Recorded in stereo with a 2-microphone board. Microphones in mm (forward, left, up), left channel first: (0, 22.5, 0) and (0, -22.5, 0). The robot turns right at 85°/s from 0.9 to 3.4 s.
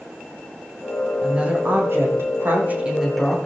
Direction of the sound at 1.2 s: 165° right.